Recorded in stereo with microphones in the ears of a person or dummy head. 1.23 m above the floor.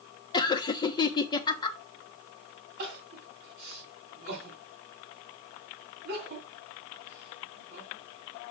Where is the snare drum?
I don't hear a snare drum.